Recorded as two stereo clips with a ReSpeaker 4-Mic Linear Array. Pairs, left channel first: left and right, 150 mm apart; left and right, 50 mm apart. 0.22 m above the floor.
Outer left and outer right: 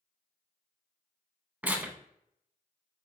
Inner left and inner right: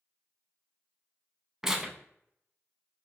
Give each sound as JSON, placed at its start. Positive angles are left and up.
{"t": 1.6, "sound": "tearing paper", "side_deg": -10, "distance_m": 0.6}